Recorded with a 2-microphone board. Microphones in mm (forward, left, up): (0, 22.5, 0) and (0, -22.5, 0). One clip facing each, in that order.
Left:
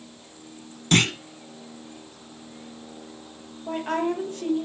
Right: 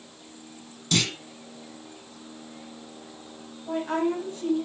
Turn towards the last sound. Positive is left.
turn(degrees=60)  # may be behind; listen again after turning